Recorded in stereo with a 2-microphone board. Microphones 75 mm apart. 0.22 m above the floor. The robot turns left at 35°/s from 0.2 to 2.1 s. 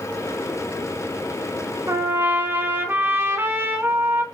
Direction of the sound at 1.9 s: 35° right (ahead or behind).